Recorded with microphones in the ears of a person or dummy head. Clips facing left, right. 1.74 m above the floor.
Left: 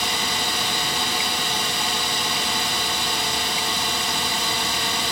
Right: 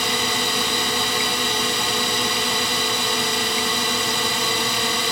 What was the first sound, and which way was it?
A drone, 70° right (ahead or behind).